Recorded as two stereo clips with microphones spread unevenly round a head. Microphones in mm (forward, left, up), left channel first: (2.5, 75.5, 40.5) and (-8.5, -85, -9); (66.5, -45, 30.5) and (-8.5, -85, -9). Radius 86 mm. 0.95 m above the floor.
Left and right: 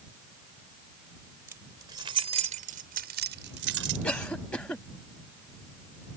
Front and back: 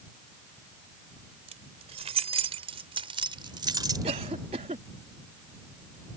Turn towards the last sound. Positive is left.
turn(degrees=170)